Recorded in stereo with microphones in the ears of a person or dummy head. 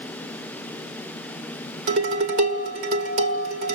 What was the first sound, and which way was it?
Dishes clattering, 40° right (ahead or behind).